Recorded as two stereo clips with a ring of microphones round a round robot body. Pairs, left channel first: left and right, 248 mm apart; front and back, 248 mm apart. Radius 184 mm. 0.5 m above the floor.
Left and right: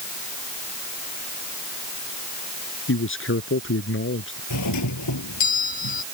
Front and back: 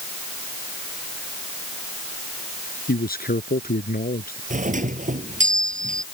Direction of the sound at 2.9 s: 55° left.